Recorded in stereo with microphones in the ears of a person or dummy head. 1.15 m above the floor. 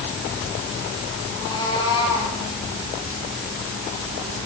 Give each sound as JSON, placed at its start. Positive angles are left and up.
{"t": 1.3, "sound": "a cat meowing", "side_deg": 30, "distance_m": 7.5}